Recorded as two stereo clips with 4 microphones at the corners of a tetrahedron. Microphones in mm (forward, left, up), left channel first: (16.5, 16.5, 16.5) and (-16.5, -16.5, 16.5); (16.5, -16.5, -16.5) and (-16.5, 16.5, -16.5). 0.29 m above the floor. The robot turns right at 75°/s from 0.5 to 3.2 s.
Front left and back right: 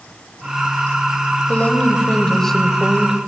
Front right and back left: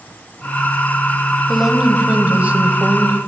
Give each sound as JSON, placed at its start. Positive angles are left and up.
{"t": 1.5, "sound": "a woman speaking", "azimuth_deg": 50, "distance_m": 1.3}